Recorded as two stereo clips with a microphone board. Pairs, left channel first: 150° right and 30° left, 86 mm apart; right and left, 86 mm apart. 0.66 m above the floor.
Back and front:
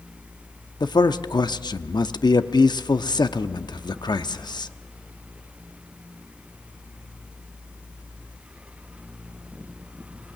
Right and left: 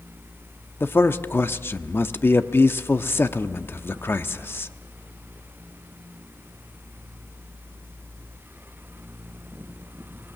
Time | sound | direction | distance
0.8 | a man speaking | 145° right | 0.8 m